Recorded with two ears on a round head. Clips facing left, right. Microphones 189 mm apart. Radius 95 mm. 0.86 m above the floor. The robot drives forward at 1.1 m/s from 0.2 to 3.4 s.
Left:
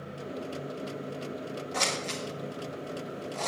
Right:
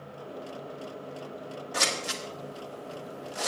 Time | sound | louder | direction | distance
1.7 | scissors | right 1 dB | 10° right (ahead or behind) | 1.6 m